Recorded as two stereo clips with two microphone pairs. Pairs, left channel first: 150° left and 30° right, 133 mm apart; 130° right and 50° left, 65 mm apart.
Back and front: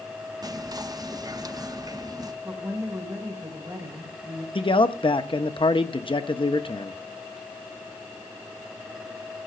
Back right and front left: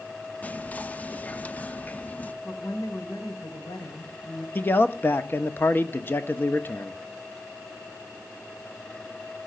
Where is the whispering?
75° right, 0.7 m.